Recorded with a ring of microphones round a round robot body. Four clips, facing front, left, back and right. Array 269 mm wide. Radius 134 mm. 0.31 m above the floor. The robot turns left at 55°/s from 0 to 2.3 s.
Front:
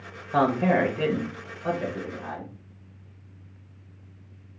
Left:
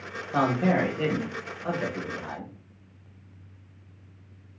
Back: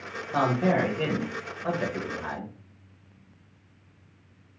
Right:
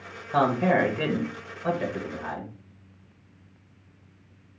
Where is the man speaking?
35° right, 0.9 m; by 2.5 s 145° right, 0.9 m.